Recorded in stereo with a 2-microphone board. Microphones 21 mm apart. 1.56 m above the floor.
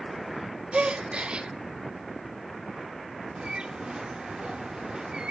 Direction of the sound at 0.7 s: 75° right (ahead or behind).